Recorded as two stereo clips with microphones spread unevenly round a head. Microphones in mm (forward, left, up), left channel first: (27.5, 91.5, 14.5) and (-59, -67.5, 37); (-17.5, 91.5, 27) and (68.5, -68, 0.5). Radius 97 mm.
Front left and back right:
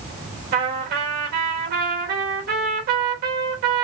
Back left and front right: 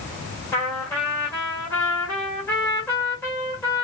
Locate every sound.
0.5 s a trumpet: 160° right, 1.7 m